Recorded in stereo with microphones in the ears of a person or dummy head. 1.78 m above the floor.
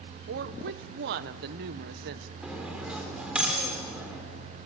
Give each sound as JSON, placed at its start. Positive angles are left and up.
{"t": 0.3, "sound": "a woman speaking", "side_deg": -60, "distance_m": 1.2}
{"t": 2.4, "sound": "cutlery clinking", "side_deg": -5, "distance_m": 3.5}